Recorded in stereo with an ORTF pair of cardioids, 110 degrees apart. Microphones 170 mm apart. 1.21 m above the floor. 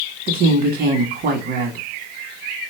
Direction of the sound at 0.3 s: 60° right.